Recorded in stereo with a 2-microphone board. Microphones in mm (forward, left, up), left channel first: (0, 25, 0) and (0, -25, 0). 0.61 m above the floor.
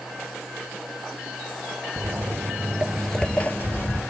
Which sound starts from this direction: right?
Footsteps, at 2.0 s.